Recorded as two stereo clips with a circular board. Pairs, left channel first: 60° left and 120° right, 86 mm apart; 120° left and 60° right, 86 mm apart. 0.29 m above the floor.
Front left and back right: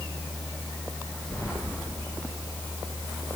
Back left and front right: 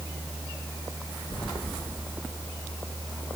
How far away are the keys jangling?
About 3 m.